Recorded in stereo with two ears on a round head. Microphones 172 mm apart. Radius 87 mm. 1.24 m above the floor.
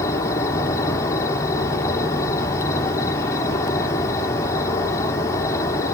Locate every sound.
0.0 s an insect: 15° left (ahead or behind), 3 m